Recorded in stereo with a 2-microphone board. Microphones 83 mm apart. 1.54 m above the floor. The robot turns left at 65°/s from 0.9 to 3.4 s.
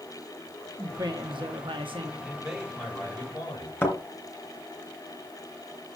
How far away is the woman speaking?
About 1.3 m.